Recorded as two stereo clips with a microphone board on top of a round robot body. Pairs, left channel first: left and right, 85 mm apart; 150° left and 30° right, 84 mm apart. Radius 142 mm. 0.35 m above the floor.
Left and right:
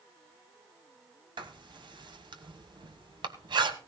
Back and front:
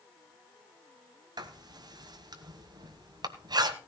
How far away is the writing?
About 1.5 m.